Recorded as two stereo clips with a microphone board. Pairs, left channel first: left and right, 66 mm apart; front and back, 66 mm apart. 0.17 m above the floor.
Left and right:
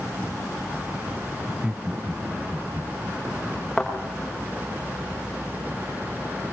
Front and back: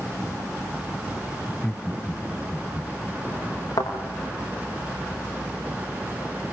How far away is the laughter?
About 1.4 m.